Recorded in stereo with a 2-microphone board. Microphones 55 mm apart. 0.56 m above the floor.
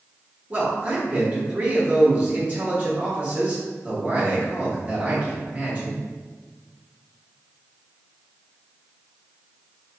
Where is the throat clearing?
I don't hear throat clearing.